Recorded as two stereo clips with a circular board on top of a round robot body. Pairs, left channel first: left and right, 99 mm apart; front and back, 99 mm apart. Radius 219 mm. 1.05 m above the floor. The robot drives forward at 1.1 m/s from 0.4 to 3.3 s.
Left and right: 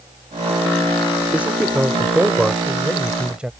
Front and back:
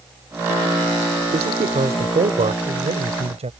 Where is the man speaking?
165° right; by 3.5 s 170° right.